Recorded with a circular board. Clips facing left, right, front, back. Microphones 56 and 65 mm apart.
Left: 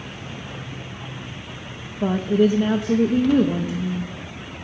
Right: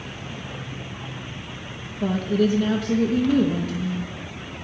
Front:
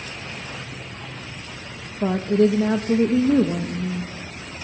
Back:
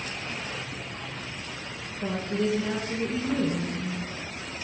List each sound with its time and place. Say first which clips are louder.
2.0 s a woman speaking: left 3 dB, front 10 dB; 25° left, 0.7 m